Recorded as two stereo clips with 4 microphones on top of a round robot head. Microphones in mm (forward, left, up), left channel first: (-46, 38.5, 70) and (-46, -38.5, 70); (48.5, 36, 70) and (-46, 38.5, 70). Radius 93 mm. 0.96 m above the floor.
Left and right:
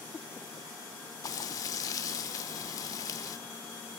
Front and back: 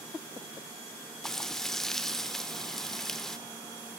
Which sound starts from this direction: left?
Frying, at 1.2 s.